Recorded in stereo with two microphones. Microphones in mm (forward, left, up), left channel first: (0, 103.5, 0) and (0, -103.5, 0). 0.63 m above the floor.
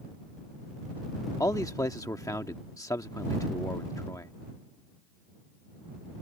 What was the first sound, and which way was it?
A man speaking, 15° left (ahead or behind).